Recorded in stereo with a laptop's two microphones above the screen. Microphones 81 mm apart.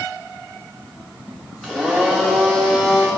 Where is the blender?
5° left (ahead or behind), 7 m.